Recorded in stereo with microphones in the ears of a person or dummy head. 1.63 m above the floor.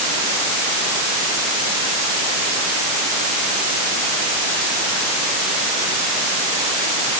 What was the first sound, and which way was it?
Only background noise.